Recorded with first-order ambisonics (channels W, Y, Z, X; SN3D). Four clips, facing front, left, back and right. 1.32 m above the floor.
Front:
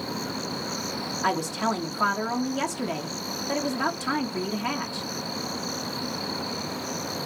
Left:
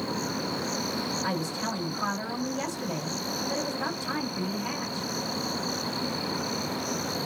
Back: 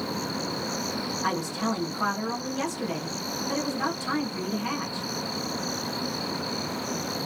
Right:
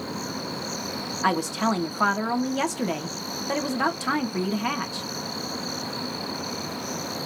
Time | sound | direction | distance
1.2 | a woman speaking | 70° right | 1.8 m